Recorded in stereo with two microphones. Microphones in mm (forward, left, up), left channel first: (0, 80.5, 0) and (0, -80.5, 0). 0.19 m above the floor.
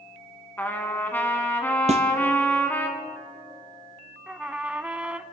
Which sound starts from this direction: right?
A snare drum, at 1.9 s.